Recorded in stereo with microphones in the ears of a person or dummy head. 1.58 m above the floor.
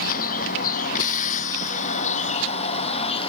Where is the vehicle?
50° left (ahead or behind); by 3.3 s 30° left (ahead or behind).